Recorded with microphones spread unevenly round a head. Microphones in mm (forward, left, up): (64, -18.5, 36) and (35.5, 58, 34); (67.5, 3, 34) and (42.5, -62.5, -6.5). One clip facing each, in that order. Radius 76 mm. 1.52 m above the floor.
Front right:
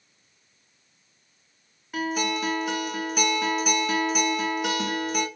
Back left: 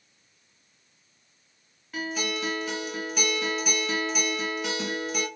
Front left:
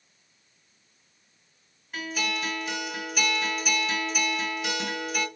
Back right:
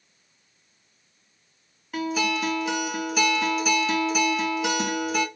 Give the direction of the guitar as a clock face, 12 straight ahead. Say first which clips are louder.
Front right 4 dB, back right 6 dB; 5 o'clock.